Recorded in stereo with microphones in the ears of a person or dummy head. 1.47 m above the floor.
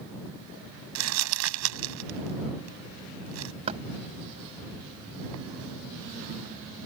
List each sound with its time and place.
0.9 s crumpling: 70° right (ahead or behind)
3.7 s knocking: 35° right (ahead or behind)